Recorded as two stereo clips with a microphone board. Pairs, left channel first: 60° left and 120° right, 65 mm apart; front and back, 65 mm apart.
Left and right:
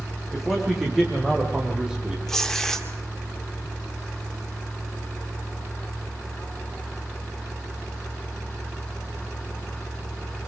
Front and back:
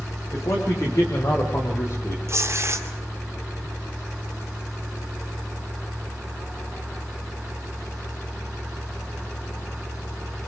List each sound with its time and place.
0.3 s a man speaking: 30° right, 7.5 m; by 2.2 s 40° right, 4.5 m
2.3 s tearing paper: 145° left, 2 m